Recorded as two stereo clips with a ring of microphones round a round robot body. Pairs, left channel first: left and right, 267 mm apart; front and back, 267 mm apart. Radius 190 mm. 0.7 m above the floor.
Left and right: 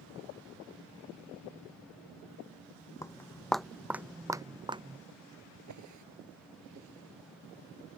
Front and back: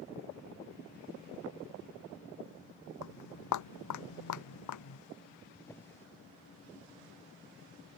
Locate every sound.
3.0 s footsteps: 10° left; by 5.0 s 20° right
5.5 s a drawer: 85° right